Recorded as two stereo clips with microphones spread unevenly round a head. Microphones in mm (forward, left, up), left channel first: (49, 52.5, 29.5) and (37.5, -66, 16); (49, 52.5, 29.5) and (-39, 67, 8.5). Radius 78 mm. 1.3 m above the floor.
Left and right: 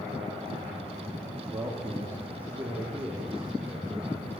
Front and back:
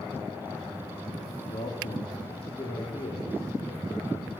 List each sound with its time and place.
1.5 s a man speaking: 25° right, 2.5 m; by 4.2 s 10° right, 5 m